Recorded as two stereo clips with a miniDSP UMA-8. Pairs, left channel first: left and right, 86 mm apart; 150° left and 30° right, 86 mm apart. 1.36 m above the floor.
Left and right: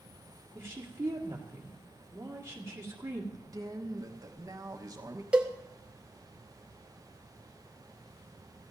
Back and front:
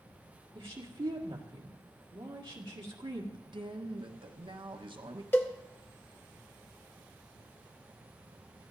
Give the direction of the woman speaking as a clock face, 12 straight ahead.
1 o'clock.